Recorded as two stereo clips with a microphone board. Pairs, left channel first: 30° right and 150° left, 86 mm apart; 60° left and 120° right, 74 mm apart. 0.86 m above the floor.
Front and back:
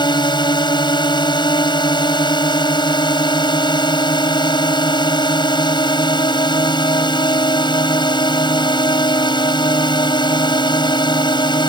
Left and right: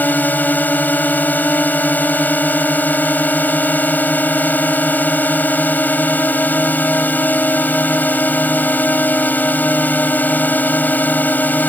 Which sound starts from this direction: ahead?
A drone, at 0.0 s.